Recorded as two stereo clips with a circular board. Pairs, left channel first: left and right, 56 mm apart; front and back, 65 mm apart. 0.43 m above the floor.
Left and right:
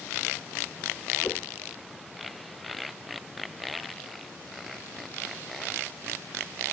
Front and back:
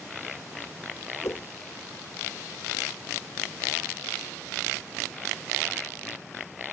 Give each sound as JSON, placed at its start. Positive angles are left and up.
{"t": 1.2, "sound": "a whoosh", "azimuth_deg": 40}